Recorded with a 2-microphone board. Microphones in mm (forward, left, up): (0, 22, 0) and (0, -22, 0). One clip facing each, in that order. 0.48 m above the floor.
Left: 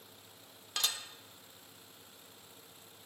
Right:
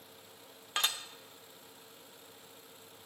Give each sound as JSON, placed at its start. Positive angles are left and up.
{"t": 0.8, "sound": "dishes clattering", "side_deg": -35, "distance_m": 0.6}